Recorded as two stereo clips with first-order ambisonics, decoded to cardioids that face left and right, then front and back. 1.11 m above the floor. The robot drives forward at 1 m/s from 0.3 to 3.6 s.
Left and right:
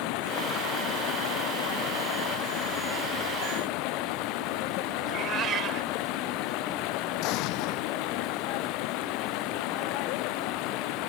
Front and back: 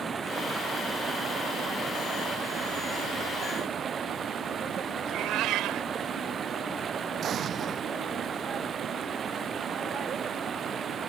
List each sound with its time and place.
0.0 s running water: 110° left; by 11.1 s 115° left
5.0 s a cat meowing: 145° right
7.2 s an explosion: 120° left